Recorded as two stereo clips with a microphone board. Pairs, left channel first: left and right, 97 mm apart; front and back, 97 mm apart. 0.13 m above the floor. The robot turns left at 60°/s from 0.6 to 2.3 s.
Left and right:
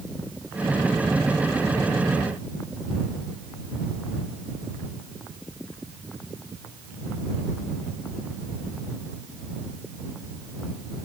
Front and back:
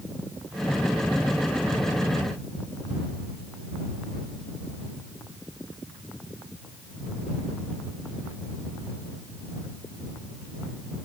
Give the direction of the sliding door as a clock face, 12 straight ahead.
No sliding door in this recording.